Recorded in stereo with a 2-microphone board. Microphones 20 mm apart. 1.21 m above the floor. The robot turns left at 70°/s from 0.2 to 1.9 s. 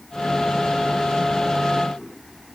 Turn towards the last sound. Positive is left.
No sound to turn to.